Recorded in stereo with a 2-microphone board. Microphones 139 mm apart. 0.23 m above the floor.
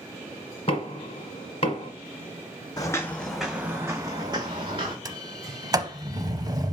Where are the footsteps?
25° left (ahead or behind), 0.8 m; by 5.0 s 40° right (ahead or behind), 1.6 m.